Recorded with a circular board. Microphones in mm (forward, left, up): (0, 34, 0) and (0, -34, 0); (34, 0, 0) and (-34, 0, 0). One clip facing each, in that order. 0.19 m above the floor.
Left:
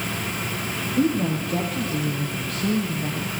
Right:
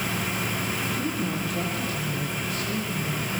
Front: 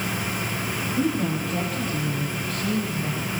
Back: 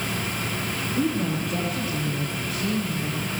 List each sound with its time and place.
1.0 s a woman speaking: 100° left, 8 m